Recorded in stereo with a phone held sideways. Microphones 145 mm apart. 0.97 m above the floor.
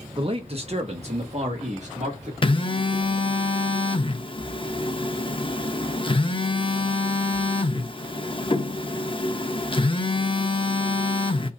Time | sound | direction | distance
0.2 | a man speaking | 35° right (ahead or behind) | 0.7 m
2.4 | a phone buzzing | 40° left (ahead or behind) | 0.6 m